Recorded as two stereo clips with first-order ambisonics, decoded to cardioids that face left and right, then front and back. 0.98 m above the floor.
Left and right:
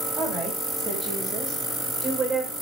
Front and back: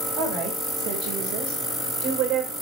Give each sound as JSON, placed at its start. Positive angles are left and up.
{"t": 0.2, "sound": "a woman speaking", "azimuth_deg": -155, "distance_m": 6.0}